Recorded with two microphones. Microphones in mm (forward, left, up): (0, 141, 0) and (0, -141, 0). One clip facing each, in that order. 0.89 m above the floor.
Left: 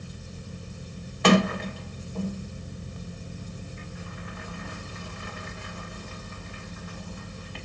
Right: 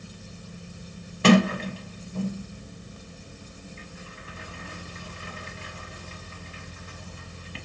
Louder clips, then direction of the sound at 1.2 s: Right 3 dB; 35° right (ahead or behind).